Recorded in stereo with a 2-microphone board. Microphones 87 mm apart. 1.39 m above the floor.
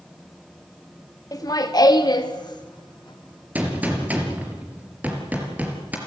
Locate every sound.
1.3 s laughter: 40° left (ahead or behind), 2 m; by 3.5 s 55° left (ahead or behind), 3.5 m
3.5 s a gunshot: 15° right (ahead or behind), 4 m